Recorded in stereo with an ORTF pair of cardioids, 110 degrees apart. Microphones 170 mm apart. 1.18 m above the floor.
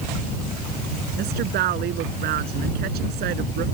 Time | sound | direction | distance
1.2 | a woman speaking | 70° right | ?